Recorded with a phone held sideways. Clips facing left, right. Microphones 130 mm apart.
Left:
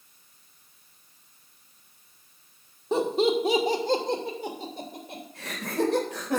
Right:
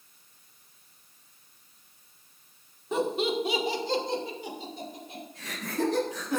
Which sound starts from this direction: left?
Laughter, at 2.9 s.